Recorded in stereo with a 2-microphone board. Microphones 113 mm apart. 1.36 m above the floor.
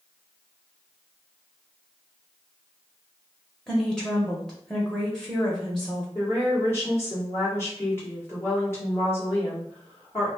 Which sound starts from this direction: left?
A woman speaking, at 6.2 s.